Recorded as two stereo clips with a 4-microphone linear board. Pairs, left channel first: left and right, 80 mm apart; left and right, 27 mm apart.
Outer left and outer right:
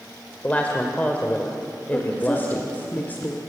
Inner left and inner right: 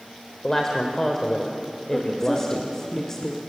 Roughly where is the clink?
I don't hear a clink.